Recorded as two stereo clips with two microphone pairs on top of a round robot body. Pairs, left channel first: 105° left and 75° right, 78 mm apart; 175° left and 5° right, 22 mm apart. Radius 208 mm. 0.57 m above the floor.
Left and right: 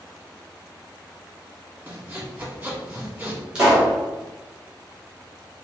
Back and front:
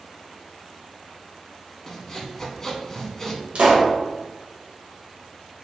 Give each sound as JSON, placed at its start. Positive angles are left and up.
{"t": 1.9, "sound": "sawing", "azimuth_deg": -120, "distance_m": 1.4}
{"t": 3.5, "sound": "a pop", "azimuth_deg": 0, "distance_m": 1.5}